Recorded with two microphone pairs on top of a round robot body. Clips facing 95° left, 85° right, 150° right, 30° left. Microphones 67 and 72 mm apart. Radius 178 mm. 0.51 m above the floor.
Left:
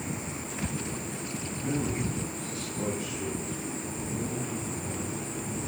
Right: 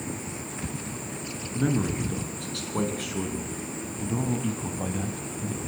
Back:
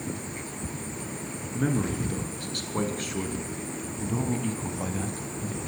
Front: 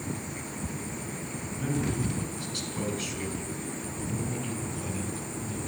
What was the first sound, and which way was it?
A man speaking, 105° right.